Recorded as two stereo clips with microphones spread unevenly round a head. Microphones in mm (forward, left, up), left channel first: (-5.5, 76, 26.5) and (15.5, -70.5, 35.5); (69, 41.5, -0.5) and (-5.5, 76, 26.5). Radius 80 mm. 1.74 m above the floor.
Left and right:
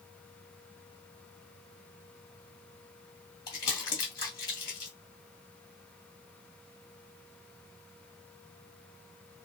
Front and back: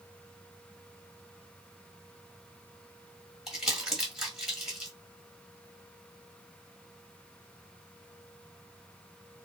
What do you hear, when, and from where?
3.5 s crumpling: 130° left, 1.6 m